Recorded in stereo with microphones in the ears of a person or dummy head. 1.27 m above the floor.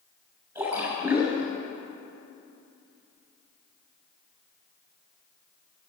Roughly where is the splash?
Centre.